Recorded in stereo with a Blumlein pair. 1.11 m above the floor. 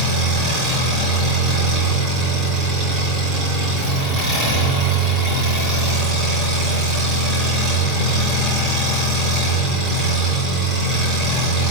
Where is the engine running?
25° right, 3 m.